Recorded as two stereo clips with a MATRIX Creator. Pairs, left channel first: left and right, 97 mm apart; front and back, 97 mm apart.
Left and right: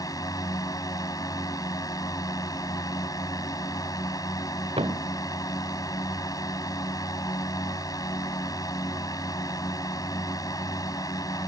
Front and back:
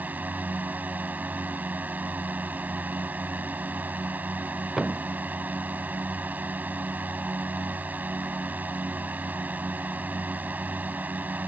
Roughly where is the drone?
Behind left.